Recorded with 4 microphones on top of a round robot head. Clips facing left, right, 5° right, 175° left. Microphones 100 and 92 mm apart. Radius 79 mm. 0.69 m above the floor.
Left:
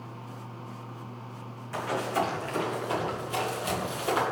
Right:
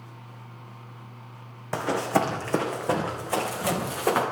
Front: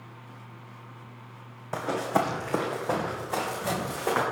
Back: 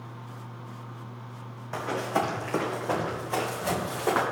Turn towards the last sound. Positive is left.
turn(degrees=-100)